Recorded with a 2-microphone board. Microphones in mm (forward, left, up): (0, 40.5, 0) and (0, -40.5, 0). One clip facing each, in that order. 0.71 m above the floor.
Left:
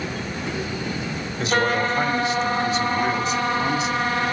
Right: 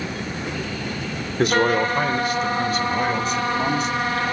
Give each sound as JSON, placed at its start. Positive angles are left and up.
{"t": 1.4, "sound": "a man speaking", "side_deg": -50, "distance_m": 2.5}